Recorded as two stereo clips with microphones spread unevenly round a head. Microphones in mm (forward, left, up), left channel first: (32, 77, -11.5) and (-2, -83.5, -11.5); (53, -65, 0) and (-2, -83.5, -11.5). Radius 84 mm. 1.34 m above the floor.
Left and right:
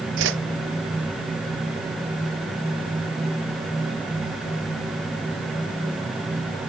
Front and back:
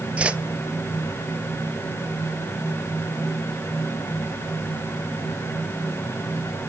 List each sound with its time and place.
0.2 s a whoosh: 95° right, 0.6 m